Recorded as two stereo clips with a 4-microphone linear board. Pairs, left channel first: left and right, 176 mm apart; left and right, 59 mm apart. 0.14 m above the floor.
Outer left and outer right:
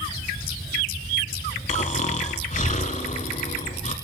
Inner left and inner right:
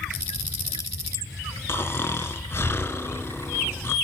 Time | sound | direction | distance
1.7 | snoring | 45° left (ahead or behind) | 0.6 m